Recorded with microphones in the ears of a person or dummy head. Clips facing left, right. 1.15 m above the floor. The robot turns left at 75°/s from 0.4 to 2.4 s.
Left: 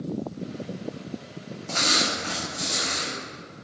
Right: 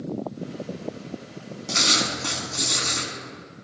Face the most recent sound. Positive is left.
turn(degrees=-85)